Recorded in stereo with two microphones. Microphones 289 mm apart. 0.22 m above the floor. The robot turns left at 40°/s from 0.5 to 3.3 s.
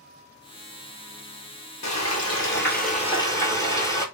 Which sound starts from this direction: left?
Frying, at 1.8 s.